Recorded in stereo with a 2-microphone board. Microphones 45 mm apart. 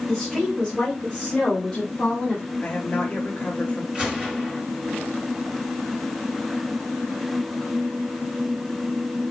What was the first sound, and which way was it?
A woman speaking, 5° right (ahead or behind).